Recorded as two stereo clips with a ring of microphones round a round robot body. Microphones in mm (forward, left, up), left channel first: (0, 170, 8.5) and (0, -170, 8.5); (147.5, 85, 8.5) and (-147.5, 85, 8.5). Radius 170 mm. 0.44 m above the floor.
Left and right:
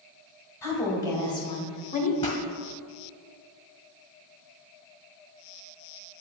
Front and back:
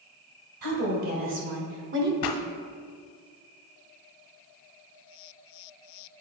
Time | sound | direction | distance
0.6 | a woman speaking | 170° left | 2.5 m
2.2 | a pop | 10° left | 1.2 m